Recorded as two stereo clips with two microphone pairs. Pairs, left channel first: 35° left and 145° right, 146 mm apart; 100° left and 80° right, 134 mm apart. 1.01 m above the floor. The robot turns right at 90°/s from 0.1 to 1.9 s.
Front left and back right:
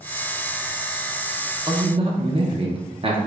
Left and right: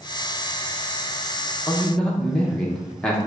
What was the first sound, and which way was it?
A man speaking, 160° left.